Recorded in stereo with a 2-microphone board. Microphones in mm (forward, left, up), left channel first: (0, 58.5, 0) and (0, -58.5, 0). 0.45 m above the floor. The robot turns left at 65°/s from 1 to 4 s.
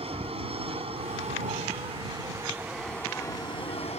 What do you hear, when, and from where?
0.0 s an aircraft: 65° right; by 4.0 s 100° left